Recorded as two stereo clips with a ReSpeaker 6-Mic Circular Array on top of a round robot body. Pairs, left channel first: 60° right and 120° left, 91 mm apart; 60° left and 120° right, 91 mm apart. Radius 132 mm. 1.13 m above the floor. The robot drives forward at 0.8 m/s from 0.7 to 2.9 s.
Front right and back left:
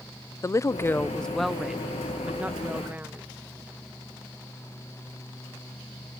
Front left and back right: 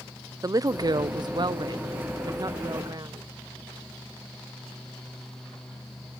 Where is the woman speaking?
100° right; by 3.3 s 170° right.